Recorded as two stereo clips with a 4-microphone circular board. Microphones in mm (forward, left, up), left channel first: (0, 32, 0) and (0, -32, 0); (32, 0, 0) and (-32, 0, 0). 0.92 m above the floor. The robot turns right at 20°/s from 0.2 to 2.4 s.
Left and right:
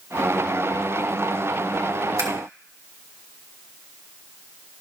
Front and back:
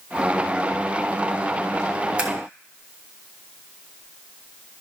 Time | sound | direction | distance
2.2 | scissors | 110° right | 2 m